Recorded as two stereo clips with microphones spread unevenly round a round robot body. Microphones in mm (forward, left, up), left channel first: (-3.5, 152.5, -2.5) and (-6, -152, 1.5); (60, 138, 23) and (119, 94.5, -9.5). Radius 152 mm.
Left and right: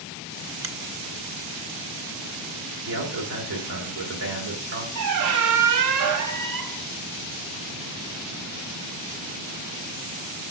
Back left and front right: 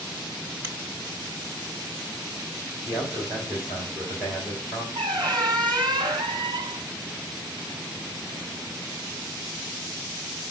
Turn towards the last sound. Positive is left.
turn(degrees=-55)